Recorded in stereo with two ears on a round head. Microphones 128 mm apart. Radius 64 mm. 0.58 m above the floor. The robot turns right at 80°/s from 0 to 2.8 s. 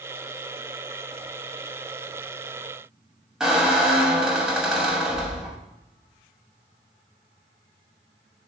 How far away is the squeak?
About 0.6 m.